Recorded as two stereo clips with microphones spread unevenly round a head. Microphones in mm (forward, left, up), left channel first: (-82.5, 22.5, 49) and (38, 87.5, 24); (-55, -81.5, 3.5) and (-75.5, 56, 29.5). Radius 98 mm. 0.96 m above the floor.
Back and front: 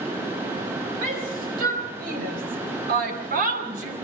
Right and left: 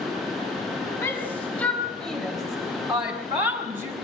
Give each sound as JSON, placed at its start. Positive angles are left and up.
{"t": 1.0, "sound": "a shout", "azimuth_deg": -5, "distance_m": 5.0}